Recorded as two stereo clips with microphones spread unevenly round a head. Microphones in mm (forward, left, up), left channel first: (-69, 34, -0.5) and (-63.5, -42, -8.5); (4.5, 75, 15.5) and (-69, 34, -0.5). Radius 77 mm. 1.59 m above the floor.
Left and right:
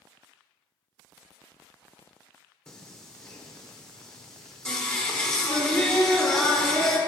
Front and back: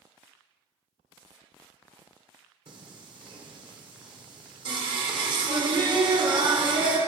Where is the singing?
175° left, 1.1 m.